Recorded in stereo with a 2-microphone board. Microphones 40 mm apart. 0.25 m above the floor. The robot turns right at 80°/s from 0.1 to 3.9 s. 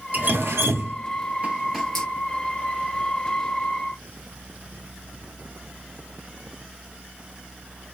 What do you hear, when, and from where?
0.1 s dripping: 45° right (ahead or behind), 0.9 m; by 2.1 s 20° left (ahead or behind), 0.9 m